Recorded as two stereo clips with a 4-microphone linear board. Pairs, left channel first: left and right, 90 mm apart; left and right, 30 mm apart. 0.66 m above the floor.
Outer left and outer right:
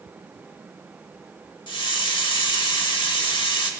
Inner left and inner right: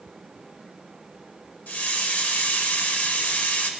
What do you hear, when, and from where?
1.7 s a hiss: 60° left (ahead or behind), 0.9 m